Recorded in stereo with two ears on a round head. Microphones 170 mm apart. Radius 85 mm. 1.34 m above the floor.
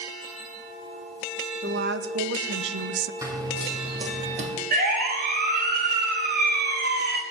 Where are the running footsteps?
15° right (ahead or behind), 2 m; by 4.5 s 35° right (ahead or behind), 3 m.